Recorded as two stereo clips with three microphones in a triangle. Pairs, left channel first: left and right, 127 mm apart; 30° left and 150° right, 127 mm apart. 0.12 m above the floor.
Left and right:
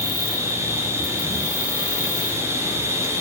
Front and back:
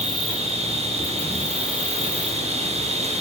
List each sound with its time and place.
0.0 s an insect: 155° right, 2.0 m